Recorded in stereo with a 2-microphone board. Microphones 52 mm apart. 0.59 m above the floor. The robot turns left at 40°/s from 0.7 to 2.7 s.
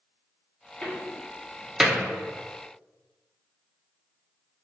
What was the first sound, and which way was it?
A door slam, 15° left (ahead or behind).